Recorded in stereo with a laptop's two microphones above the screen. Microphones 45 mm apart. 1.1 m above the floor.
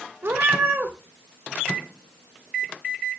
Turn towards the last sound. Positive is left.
turn(degrees=-60)  # may be behind; listen again after turning